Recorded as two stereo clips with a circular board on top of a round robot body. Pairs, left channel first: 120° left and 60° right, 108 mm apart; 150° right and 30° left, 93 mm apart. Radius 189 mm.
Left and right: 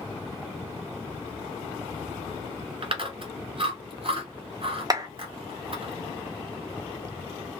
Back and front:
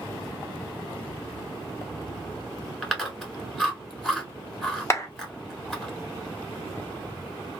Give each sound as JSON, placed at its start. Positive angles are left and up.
{"t": 2.8, "sound": "chewing", "azimuth_deg": -65, "distance_m": 2.0}
{"t": 4.9, "sound": "a clap", "azimuth_deg": -100, "distance_m": 1.1}